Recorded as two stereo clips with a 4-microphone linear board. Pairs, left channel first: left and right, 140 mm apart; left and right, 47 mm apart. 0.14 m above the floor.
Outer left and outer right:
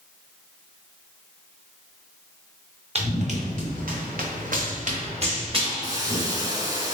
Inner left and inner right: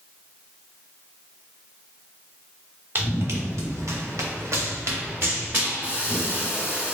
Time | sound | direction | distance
3.0 | running footsteps | 50° right (ahead or behind) | 1.7 m
5.8 | a hiss | 25° right (ahead or behind) | 0.9 m